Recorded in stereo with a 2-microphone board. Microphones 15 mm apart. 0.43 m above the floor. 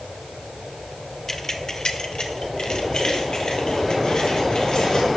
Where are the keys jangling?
25° left (ahead or behind), 0.8 m; by 5.1 s 65° left (ahead or behind), 4 m.